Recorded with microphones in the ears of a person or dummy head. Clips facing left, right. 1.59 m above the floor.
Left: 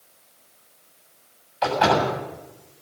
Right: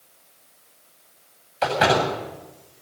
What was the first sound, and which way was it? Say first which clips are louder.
A door slam: even; 40° right (ahead or behind).